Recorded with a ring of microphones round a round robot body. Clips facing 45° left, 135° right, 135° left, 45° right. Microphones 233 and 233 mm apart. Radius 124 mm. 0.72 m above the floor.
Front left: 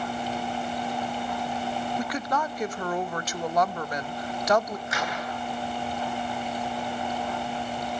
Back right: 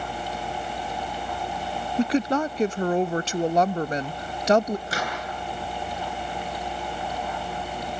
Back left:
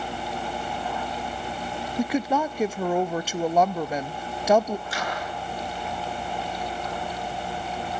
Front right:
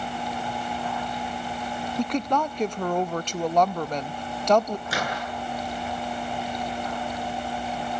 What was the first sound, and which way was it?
A woman speaking, 150° right.